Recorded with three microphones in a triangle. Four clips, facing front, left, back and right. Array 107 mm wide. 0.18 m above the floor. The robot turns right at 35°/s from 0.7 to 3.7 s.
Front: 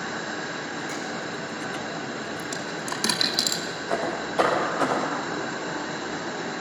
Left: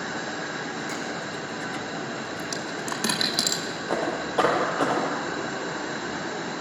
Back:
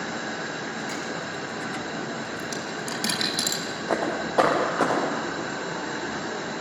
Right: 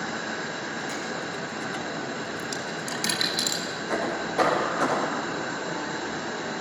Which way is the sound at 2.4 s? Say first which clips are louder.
Left 1 dB, even; 45° left.